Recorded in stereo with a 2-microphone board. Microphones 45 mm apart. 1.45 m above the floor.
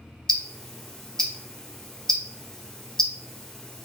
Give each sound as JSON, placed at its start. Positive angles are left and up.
{"t": 0.3, "sound": "ticking", "side_deg": 15, "distance_m": 0.7}